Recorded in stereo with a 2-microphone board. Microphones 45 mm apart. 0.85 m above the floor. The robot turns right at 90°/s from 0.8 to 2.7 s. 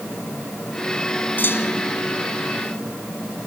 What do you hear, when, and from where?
1.4 s a clunk: 45° left; by 1.9 s 95° left